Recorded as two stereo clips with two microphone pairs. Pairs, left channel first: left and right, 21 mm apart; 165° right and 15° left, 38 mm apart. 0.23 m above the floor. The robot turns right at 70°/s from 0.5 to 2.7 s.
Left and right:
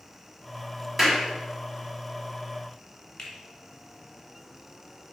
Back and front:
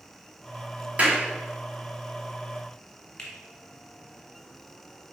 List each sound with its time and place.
1.0 s a clap: 20° right, 1.5 m; by 1.2 s 5° right, 1.5 m
3.2 s a finger snap: 120° left, 1.7 m